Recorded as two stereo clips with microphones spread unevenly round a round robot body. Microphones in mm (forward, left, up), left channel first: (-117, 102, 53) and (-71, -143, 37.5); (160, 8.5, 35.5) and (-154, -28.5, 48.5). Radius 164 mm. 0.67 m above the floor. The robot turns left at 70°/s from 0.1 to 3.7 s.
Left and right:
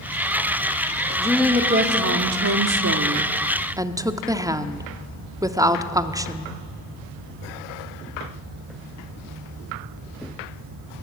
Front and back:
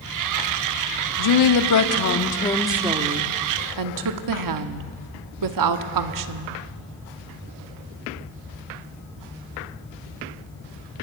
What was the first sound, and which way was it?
A woman speaking, 20° left.